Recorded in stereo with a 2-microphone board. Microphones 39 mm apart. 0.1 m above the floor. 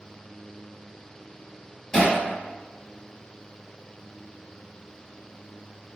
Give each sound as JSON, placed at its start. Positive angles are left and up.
{"t": 1.9, "sound": "hammering", "side_deg": 10, "distance_m": 1.8}